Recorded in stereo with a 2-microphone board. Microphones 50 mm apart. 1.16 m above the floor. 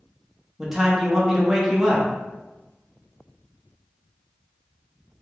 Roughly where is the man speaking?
Centre.